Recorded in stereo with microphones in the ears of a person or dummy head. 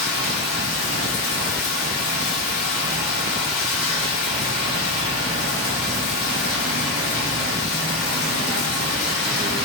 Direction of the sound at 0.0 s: 65° left (ahead or behind).